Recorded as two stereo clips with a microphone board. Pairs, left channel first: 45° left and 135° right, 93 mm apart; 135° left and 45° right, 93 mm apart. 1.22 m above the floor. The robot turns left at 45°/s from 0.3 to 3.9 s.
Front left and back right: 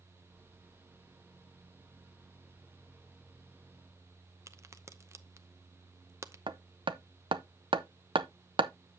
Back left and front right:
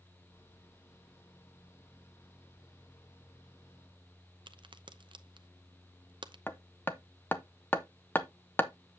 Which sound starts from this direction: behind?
Hammering, at 6.5 s.